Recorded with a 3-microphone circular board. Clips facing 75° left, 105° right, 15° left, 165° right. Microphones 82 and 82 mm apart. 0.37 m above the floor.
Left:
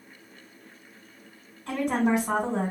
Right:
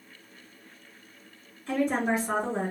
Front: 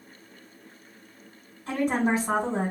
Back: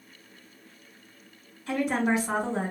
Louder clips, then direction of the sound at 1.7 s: Left 2 dB, front 1 dB; 60° left.